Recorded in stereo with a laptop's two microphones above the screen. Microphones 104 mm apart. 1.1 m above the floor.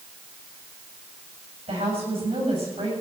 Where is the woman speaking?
85° right, 7.5 m.